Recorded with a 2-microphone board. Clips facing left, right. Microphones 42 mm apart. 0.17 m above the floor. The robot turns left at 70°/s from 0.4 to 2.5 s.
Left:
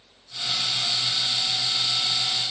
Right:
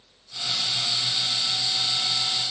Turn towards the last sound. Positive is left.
No sound to turn to.